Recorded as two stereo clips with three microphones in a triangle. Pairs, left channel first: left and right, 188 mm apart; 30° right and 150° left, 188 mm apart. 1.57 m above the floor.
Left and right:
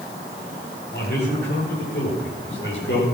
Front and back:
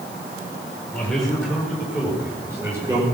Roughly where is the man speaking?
Ahead left.